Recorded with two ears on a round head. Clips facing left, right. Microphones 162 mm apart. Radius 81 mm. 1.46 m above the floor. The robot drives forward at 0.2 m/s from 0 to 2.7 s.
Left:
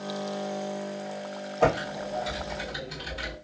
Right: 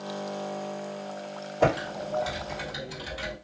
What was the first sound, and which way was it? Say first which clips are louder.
Typing on a keyboard: even; 15° right (ahead or behind).